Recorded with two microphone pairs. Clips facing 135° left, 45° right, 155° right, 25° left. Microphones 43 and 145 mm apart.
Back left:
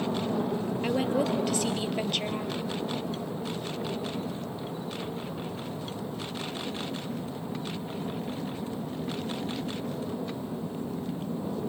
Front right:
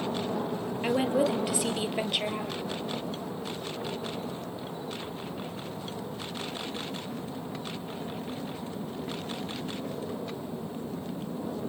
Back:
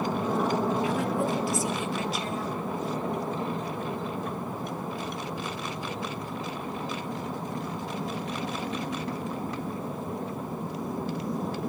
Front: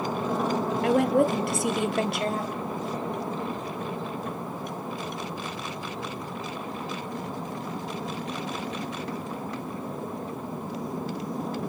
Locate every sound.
0.8 s a woman speaking: 30° left, 2.5 m